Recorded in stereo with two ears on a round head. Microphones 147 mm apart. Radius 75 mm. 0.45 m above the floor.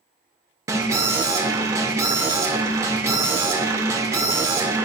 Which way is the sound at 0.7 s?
20° right (ahead or behind).